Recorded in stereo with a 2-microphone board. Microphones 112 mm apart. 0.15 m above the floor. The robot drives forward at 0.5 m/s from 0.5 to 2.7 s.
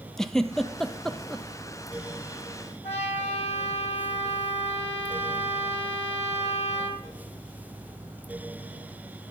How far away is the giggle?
About 0.6 m.